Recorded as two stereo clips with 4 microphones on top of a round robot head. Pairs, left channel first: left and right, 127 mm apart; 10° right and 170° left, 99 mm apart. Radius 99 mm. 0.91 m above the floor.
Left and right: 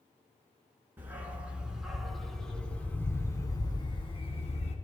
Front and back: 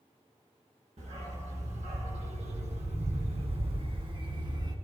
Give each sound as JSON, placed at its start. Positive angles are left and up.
{"t": 1.0, "sound": "a dog barking", "azimuth_deg": -165, "distance_m": 4.5}